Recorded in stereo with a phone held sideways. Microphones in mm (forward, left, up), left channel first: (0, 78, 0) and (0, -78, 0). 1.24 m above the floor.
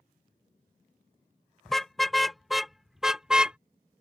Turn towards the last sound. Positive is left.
turn(degrees=-10)  # may be behind; listen again after turning